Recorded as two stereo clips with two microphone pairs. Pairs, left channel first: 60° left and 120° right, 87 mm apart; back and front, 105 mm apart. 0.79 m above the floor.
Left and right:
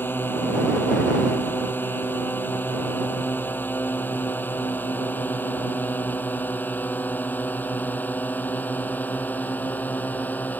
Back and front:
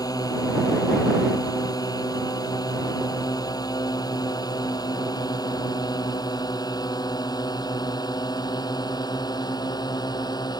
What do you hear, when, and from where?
0.0 s a drone: 130° left